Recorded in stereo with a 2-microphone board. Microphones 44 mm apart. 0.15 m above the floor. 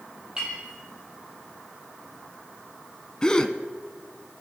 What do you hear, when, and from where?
0.4 s a clink: 15° right (ahead or behind), 3.5 m
3.2 s a gasp: 20° left (ahead or behind), 0.5 m